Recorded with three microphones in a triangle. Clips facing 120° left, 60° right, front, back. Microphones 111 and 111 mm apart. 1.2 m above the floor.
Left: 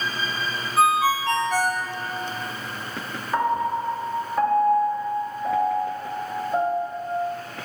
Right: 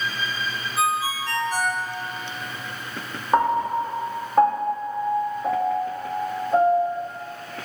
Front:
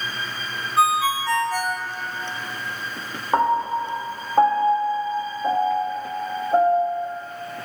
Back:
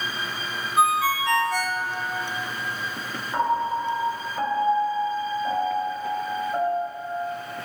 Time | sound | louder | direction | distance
0.8 | a ringtone | left 5 dB, front 1 dB | 85° left | 1.0 m
3.3 | a piano | right 3 dB, front 4 dB | 15° right | 1.2 m